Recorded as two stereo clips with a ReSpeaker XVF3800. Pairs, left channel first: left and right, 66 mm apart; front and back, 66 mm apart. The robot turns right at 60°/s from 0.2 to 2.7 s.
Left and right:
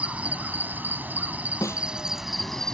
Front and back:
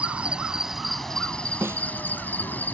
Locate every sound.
0.0 s an insect: 135° right; by 2.7 s 15° left
1.6 s a snare drum: 125° left; by 1.9 s 140° left